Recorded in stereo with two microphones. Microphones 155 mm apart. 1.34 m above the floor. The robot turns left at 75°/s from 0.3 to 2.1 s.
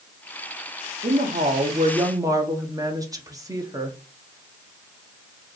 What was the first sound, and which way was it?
A woman speaking, 75° right.